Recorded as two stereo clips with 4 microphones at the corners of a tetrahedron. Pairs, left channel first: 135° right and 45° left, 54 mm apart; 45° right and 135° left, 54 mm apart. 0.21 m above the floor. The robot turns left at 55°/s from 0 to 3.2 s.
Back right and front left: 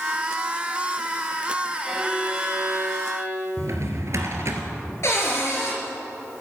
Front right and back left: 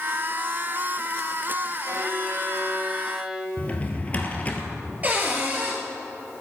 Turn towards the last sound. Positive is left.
turn(degrees=-165)